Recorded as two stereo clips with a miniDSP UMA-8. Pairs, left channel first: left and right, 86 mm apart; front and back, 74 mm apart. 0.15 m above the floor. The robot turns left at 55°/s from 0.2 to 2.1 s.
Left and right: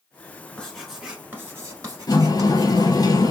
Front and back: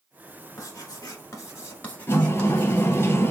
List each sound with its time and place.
0.6 s writing: 10° left, 1.0 m; by 3.1 s 70° right, 1.0 m
2.1 s a sliding door: 55° left, 0.6 m